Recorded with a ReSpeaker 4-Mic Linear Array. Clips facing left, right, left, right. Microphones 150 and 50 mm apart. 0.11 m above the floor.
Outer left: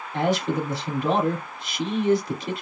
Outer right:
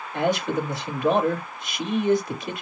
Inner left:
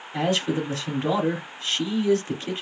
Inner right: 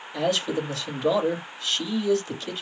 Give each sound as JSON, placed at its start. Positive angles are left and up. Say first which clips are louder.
{"t": 0.1, "sound": "a man speaking", "louder": "even, inner left 1 dB", "side_deg": 30, "distance_m": 2.0}